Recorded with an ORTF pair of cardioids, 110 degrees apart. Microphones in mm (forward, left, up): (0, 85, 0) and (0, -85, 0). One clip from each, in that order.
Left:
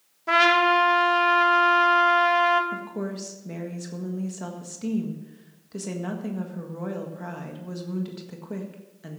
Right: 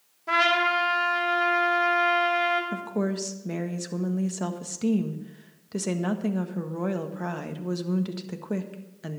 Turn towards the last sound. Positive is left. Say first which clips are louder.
# right 3 dB
turn(degrees=-30)